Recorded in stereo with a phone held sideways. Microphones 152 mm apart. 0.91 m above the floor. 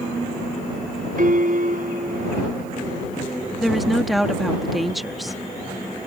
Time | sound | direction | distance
1.2 | a piano | 65° right (ahead or behind) | ?
3.6 | a woman speaking | centre (ahead or behind) | ?